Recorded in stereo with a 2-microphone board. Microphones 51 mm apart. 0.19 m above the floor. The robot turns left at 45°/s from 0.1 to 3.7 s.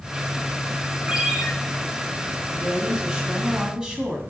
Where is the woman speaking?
20° right (ahead or behind), 1.6 m; by 4.2 s 15° right (ahead or behind), 1.6 m.